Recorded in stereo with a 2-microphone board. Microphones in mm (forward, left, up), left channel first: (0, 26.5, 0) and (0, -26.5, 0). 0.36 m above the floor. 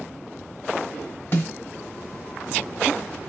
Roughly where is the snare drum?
Left.